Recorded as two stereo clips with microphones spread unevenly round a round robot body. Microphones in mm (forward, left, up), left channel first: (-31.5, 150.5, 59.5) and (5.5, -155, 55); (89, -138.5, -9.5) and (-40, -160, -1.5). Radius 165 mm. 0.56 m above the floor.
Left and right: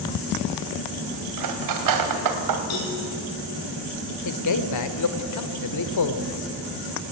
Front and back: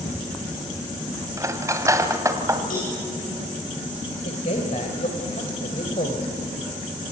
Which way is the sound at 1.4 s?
105° right.